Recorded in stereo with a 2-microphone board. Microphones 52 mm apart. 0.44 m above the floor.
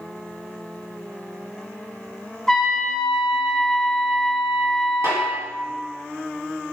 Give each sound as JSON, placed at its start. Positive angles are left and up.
{"t": 2.5, "sound": "a trumpet", "side_deg": 10, "distance_m": 0.8}
{"t": 5.0, "sound": "a snare drum", "side_deg": -65, "distance_m": 1.8}